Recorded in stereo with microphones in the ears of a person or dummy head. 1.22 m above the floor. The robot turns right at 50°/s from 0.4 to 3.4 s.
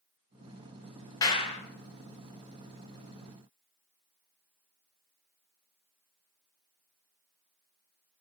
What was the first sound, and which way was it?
A clap, 20° left (ahead or behind).